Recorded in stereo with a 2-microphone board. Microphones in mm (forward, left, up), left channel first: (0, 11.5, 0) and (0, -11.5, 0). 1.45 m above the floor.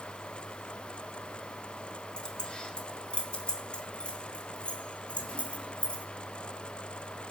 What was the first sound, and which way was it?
Keys jangling, 40° left (ahead or behind).